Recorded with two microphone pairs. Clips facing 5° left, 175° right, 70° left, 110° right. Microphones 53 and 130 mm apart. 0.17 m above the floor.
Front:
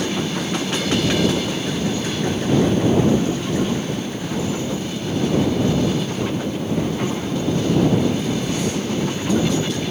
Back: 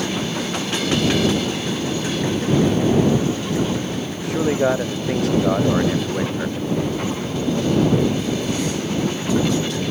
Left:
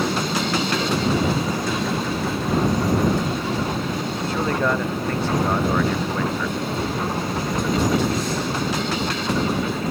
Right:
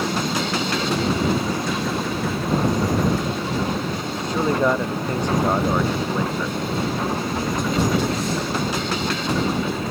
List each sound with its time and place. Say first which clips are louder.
4.2 s a man speaking: back 5 dB, right 3 dB; 175° left